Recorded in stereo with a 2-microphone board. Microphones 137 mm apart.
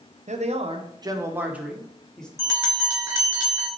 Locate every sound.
0.3 s a man speaking: 60° right (ahead or behind), 0.7 m; by 2.3 s 5° left (ahead or behind), 1.1 m
2.4 s a bell: 20° right (ahead or behind), 1.7 m